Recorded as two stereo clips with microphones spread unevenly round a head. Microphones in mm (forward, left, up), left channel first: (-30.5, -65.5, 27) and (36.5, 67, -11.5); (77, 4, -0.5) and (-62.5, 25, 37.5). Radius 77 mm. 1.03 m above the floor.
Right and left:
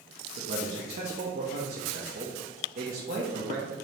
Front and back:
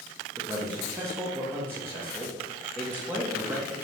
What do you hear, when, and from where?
0.4 s a man speaking: 95° left, 0.7 m